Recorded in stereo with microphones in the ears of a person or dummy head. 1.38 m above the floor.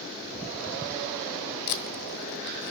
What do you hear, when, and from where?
1.7 s tape being pulled: 55° left (ahead or behind), 2.5 m